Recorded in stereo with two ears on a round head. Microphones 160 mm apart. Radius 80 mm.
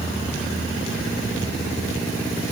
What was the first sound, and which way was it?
Only background noise.